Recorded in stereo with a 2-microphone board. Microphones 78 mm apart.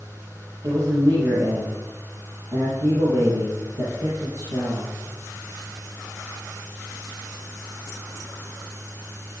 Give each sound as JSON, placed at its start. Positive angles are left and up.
{"t": 0.6, "sound": "a man speaking", "side_deg": -50, "distance_m": 6.0}